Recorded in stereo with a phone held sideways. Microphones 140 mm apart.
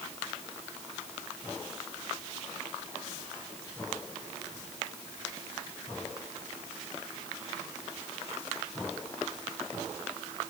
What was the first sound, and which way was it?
Only background noise.